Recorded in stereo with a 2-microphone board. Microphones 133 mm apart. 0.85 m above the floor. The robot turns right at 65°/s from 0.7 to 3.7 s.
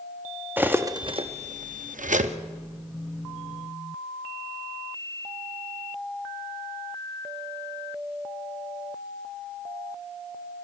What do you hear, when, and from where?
0.6 s cutlery clinking: 15° right (ahead or behind), 0.5 m; by 2.4 s 55° right (ahead or behind), 0.5 m